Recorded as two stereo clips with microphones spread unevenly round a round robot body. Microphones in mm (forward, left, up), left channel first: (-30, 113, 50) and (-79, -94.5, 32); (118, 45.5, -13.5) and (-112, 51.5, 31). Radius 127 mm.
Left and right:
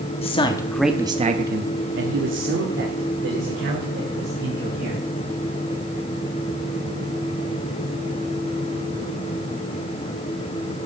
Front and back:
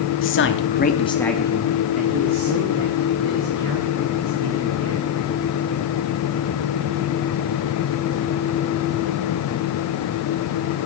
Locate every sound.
0.2 s a man speaking: 10° left, 1.3 m; by 5.1 s 140° right, 4.5 m